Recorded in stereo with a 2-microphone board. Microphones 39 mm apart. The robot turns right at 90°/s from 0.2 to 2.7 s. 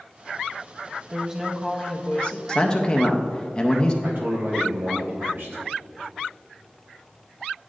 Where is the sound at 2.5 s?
20° left (ahead or behind), 0.5 m.